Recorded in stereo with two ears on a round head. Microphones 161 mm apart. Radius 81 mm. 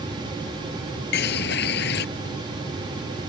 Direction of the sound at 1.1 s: 65° left (ahead or behind).